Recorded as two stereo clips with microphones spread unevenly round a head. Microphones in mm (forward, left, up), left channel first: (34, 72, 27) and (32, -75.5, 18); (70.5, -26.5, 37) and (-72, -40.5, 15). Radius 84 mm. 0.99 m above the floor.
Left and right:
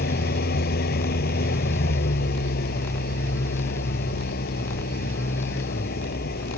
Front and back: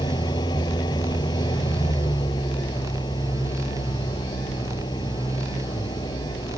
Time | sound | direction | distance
0.0 | an engine running | 75° left | ?